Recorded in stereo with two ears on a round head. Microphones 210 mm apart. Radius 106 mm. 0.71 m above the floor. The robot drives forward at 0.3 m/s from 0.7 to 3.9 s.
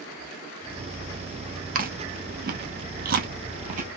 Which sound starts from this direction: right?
Chewing, at 1.8 s.